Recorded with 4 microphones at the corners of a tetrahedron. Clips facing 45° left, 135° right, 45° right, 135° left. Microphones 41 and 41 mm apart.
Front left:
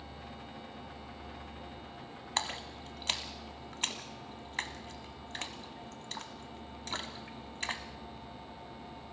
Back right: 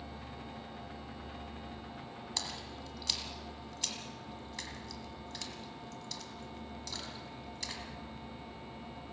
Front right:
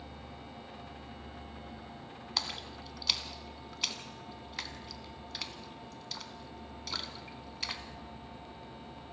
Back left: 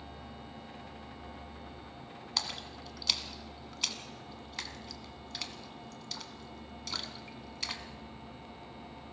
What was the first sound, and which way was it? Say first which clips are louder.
A splash: front left 7 dB, even; 40° left.